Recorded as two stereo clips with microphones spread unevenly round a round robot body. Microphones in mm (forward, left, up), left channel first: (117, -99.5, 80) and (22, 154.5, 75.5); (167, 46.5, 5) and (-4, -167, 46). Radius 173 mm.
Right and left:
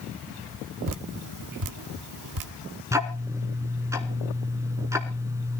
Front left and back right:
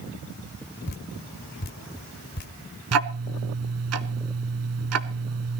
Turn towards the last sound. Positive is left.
turn(degrees=-170)